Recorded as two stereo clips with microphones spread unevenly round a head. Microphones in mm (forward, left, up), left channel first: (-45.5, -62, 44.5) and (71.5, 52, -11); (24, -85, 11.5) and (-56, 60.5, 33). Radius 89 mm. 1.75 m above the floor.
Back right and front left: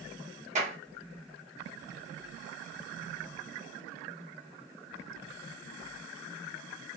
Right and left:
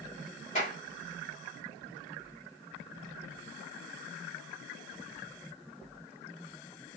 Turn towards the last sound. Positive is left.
turn(degrees=-10)